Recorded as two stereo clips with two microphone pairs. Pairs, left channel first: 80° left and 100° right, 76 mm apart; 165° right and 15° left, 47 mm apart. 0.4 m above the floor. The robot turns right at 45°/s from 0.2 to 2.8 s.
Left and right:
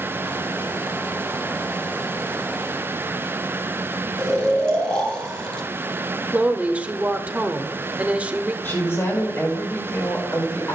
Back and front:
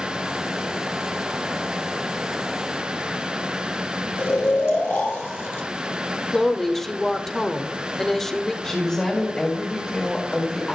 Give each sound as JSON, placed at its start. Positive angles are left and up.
{"t": 4.2, "sound": "snoring", "azimuth_deg": 160, "distance_m": 2.0}
{"t": 6.3, "sound": "a woman speaking", "azimuth_deg": -95, "distance_m": 0.8}
{"t": 8.6, "sound": "a woman speaking", "azimuth_deg": 125, "distance_m": 1.8}